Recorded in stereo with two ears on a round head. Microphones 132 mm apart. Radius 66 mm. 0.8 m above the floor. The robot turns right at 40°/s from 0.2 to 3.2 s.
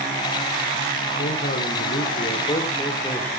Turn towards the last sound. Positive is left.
turn(degrees=170)